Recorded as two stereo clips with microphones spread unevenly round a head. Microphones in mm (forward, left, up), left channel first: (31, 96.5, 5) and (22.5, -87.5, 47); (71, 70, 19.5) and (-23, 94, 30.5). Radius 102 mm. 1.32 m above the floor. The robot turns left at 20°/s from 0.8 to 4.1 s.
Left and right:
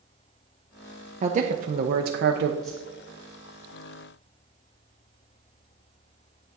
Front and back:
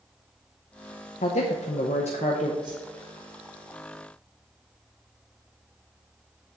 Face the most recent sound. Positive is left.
turn(degrees=160)